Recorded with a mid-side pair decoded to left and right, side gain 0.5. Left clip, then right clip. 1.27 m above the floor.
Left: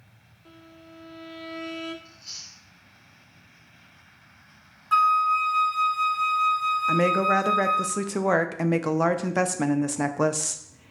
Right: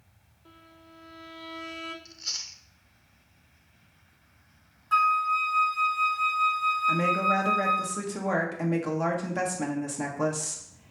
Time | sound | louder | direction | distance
0.5 | a violin | left 4 dB | 10° left | 0.7 m
2.0 | chewing | right 6 dB | 65° right | 0.7 m
4.9 | a flute | left 3 dB | 25° left | 0.7 m
6.9 | a woman speaking | left 5 dB | 45° left | 0.6 m